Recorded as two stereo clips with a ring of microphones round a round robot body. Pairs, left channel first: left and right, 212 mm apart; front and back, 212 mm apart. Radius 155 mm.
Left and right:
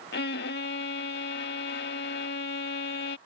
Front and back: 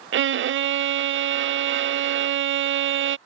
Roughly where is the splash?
I don't hear a splash.